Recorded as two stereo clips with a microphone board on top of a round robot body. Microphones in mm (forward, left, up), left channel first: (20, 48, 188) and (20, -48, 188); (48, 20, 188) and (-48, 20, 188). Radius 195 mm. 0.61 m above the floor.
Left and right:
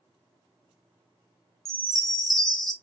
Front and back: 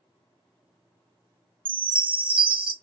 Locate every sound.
1.6 s a chime: 175° left, 1.0 m